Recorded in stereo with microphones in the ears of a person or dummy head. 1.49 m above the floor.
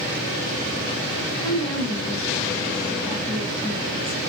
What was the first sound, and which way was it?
A woman speaking, 30° right (ahead or behind).